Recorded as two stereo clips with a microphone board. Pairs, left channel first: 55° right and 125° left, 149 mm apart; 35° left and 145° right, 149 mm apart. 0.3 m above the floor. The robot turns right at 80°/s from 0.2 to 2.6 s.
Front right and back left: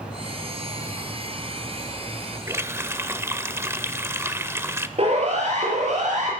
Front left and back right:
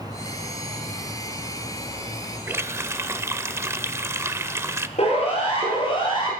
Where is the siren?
80° left, 5.5 m; by 6.3 s 90° left, 6 m.